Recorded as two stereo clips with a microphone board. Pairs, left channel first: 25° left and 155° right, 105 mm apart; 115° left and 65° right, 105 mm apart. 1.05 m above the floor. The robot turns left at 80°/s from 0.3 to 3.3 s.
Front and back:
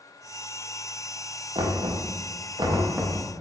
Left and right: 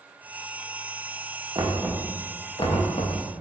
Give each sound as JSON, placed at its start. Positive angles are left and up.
{"t": 1.6, "sound": "knocking", "azimuth_deg": -115, "distance_m": 0.6}